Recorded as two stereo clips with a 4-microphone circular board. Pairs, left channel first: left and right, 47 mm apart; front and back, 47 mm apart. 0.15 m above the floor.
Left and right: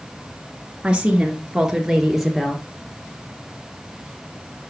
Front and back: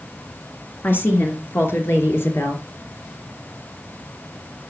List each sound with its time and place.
0.8 s a woman speaking: 30° right, 2.5 m; by 2.6 s straight ahead, 3 m